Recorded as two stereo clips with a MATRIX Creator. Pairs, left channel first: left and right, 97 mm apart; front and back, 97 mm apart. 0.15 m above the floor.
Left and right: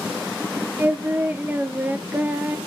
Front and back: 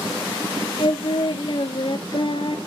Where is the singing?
20° right, 0.7 m.